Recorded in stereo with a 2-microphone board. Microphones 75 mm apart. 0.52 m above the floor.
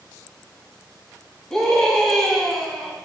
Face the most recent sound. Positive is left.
turn(degrees=5)  # may be behind; listen again after turning